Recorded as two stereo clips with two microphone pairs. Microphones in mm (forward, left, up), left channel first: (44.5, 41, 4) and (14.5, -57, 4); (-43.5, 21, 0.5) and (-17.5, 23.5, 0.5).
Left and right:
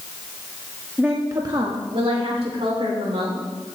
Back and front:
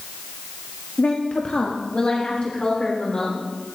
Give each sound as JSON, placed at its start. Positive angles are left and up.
{"t": 1.0, "sound": "a woman speaking", "azimuth_deg": 175, "distance_m": 0.8}